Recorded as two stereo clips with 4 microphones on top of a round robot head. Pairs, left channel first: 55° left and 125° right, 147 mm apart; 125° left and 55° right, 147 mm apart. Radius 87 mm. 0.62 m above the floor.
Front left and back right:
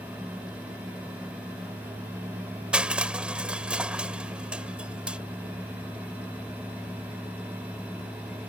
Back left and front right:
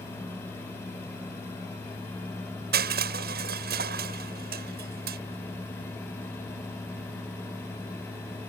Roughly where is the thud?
No thud in this recording.